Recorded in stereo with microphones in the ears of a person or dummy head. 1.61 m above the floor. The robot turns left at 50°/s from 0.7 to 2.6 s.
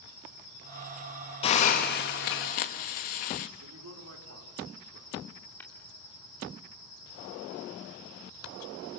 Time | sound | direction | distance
1.4 | a hiss | 145° left | 1.2 m
3.6 | a man speaking | 80° right | 4.5 m
5.6 | tapping | 10° left (ahead or behind) | 2.5 m